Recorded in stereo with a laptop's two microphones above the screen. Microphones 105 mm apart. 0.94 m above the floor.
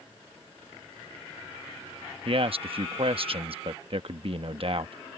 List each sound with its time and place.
2.2 s a man speaking: 55° right (ahead or behind)